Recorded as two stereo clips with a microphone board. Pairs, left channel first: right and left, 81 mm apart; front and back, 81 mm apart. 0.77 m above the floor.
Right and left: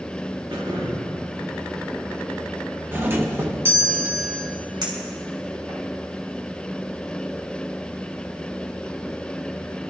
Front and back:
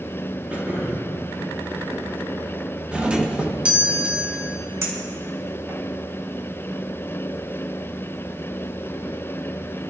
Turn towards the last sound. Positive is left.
turn(degrees=125)